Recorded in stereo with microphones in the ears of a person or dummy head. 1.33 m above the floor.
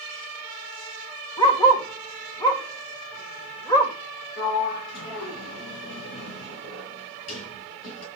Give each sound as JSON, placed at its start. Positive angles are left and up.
{"t": 1.4, "sound": "a dog barking", "side_deg": 20, "distance_m": 1.8}
{"t": 4.4, "sound": "a sliding door", "side_deg": 70, "distance_m": 5.5}